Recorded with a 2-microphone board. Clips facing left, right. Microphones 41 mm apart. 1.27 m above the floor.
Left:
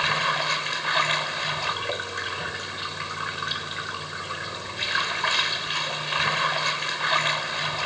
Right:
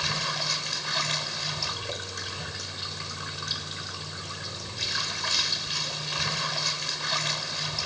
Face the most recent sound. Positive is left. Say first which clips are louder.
# left 7 dB
turn(degrees=35)  # may be behind; listen again after turning